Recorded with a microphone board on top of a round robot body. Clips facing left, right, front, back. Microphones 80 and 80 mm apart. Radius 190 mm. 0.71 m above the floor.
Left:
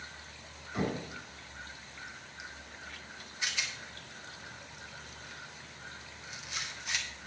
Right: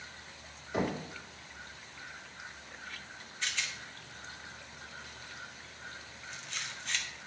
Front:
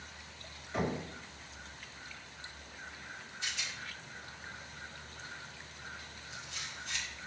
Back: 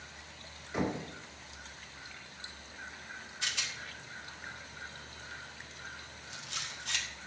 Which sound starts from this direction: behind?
A rattle, at 3.4 s.